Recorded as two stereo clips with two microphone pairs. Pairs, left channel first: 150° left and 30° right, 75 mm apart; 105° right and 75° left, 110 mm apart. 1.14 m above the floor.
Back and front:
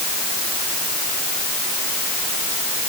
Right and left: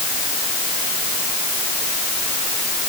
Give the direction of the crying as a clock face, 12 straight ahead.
No crying in this recording.